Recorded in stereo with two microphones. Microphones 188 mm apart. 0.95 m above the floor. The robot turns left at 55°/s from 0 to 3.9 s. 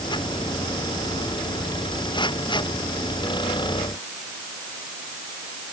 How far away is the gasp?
I don't hear a gasp.